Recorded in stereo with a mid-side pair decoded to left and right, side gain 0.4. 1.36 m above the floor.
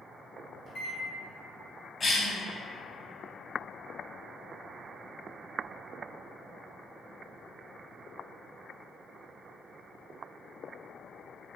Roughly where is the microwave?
Ahead left.